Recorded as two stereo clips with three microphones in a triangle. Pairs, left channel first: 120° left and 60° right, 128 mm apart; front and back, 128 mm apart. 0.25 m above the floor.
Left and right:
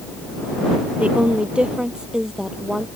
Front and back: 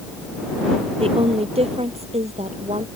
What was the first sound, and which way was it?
A woman speaking, 140° right.